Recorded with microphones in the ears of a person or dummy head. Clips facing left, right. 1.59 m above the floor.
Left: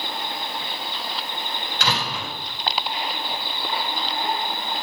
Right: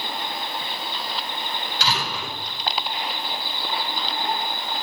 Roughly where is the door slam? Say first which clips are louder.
Left 1 dB; left.